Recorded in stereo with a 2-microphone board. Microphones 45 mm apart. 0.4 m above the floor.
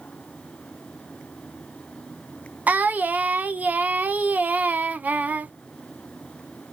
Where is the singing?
40° right (ahead or behind), 0.5 m.